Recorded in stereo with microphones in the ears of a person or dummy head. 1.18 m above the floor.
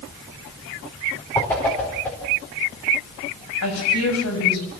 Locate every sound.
1.4 s a whoosh: 15° left (ahead or behind), 4.5 m
3.6 s a woman speaking: 90° left, 7.5 m